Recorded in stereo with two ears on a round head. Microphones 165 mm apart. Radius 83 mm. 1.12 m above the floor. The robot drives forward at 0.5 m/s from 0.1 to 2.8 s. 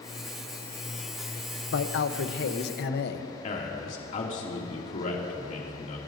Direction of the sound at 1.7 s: 70° left (ahead or behind).